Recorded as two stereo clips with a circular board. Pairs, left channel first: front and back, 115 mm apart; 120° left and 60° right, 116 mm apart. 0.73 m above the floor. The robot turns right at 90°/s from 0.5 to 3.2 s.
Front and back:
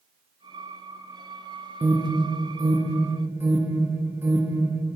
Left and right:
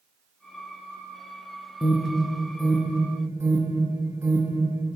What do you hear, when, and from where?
1.8 s an alarm: 115° left, 0.9 m; by 4.9 s 115° right, 0.9 m